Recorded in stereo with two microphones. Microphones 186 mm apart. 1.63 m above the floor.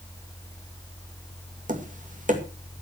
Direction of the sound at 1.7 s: 45° right (ahead or behind).